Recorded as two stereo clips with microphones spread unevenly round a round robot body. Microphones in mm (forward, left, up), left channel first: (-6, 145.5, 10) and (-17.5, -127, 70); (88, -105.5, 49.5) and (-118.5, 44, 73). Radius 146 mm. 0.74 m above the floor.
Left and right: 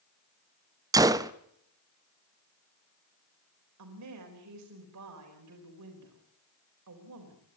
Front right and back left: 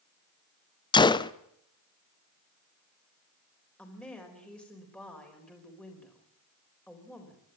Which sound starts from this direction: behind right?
A woman speaking, at 3.8 s.